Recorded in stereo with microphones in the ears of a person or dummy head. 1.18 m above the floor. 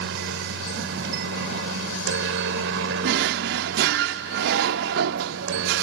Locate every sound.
0.0 s a helicopter: 60° right (ahead or behind); by 5.8 s 65° right (ahead or behind)
3.0 s a drawer: 60° right (ahead or behind)